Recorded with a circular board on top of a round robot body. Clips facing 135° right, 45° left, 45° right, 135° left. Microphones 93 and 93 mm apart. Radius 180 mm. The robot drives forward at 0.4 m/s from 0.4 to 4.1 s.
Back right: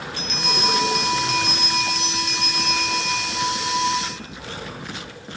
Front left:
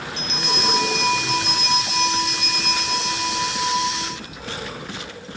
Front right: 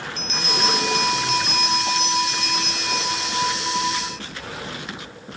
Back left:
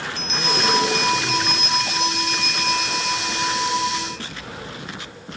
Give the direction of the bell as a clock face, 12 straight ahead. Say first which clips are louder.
Back right 1 dB, back left 1 dB; 3 o'clock.